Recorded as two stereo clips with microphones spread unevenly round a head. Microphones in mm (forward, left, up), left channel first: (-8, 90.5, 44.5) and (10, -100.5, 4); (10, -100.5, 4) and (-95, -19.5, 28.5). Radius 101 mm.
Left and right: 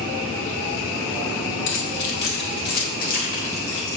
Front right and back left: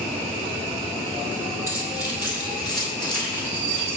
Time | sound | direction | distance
1.7 | keys jangling | 65° left | 4 m